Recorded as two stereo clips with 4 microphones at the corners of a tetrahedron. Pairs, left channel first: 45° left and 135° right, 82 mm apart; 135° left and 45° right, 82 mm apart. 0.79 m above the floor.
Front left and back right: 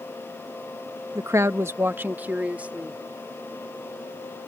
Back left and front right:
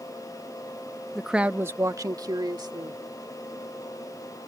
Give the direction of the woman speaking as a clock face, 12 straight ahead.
5 o'clock.